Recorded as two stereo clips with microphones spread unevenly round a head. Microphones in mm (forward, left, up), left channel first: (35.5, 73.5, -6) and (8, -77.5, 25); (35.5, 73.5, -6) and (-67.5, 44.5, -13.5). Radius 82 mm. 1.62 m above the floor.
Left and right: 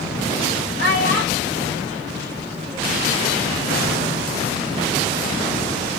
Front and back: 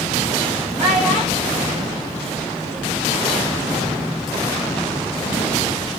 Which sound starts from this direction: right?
A child speaking, at 0.8 s.